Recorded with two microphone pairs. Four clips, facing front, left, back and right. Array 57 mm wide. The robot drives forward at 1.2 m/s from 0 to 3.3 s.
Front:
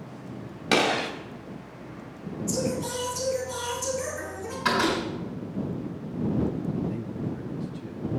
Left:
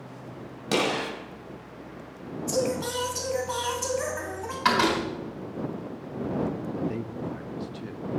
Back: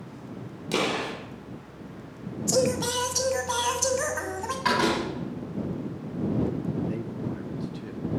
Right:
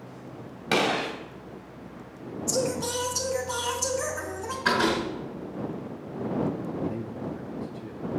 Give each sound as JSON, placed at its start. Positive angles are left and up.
{"t": 0.7, "sound": "a gunshot", "azimuth_deg": -25, "distance_m": 2.5}
{"t": 2.5, "sound": "singing", "azimuth_deg": 165, "distance_m": 1.2}
{"t": 4.7, "sound": "a door slam", "azimuth_deg": 100, "distance_m": 4.5}
{"t": 6.7, "sound": "a man speaking", "azimuth_deg": 115, "distance_m": 0.8}